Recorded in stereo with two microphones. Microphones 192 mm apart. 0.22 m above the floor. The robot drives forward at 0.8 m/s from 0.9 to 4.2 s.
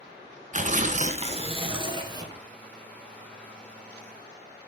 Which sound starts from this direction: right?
Tearing paper, at 0.5 s.